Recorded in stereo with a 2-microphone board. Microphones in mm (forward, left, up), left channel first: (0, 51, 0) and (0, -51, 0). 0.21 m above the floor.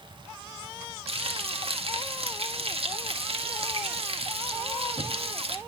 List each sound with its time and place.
1.1 s frying: 70° right (ahead or behind), 1.5 m